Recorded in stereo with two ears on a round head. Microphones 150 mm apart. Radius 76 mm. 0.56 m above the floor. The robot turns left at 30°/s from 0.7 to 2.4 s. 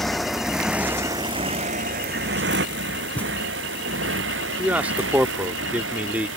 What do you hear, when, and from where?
0.0 s a motorcycle: centre (ahead or behind); by 6.4 s 75° right (ahead or behind)
3.1 s a thud: 10° left (ahead or behind)
4.6 s a man speaking: 10° right (ahead or behind)